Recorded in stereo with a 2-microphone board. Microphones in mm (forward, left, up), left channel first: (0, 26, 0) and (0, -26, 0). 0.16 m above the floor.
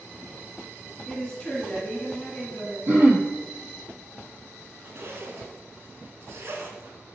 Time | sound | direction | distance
1.1 | a woman speaking | 15° left (ahead or behind) | 1.4 m
2.9 | throat clearing | 40° right (ahead or behind) | 0.8 m
4.8 | a zipper | 50° right (ahead or behind) | 0.6 m